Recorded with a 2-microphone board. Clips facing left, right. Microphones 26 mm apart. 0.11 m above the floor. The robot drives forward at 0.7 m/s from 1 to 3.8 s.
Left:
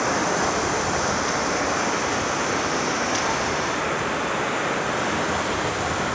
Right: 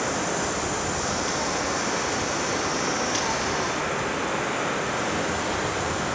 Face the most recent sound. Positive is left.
turn(degrees=20)  # may be behind; listen again after turning